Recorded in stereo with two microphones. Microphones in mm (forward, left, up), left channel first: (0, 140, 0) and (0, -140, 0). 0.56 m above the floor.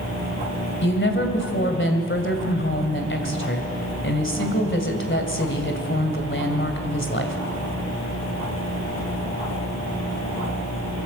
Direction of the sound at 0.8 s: 45° left (ahead or behind).